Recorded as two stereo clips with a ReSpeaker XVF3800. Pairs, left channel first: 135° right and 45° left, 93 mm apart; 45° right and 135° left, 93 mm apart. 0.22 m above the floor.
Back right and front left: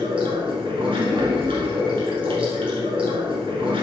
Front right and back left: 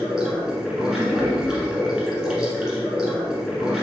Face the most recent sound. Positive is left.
turn(degrees=50)